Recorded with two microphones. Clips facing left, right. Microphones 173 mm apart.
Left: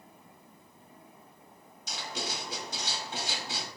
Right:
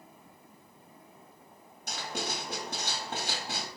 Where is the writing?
65° right (ahead or behind), 1.8 m.